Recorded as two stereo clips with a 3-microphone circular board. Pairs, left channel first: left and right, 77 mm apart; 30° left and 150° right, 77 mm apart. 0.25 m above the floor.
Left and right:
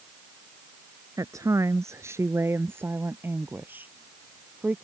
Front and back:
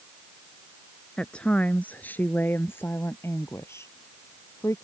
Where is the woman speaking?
45° right; by 4.8 s 20° right.